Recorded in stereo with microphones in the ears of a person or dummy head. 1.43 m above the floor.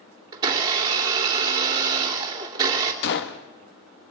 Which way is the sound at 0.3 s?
15° right (ahead or behind).